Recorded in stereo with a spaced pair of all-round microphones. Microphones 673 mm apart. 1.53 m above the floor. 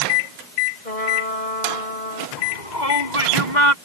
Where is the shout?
80° left.